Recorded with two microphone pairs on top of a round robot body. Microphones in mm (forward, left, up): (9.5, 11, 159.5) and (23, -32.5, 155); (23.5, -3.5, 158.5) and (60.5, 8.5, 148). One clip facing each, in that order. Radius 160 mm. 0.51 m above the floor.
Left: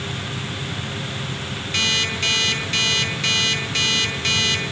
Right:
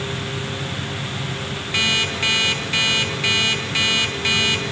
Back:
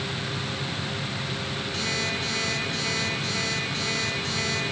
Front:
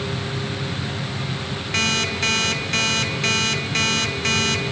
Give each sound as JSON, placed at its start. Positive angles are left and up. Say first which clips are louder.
{"t": 1.7, "sound": "an alarm clock", "louder": "right 2 dB, front 9 dB", "azimuth_deg": 5, "distance_m": 4.0}